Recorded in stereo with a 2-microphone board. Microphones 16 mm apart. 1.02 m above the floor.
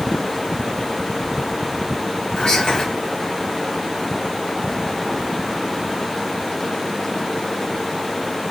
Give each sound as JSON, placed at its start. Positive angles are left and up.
{"t": 2.4, "sound": "whispering", "side_deg": 60, "distance_m": 1.4}